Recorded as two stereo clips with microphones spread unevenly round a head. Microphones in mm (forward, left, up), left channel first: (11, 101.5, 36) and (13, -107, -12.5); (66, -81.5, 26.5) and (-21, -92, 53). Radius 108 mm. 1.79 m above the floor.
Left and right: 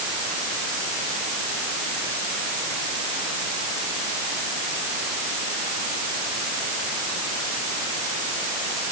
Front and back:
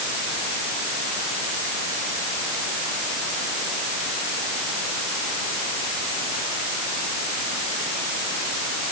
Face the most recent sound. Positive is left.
No sound to turn to.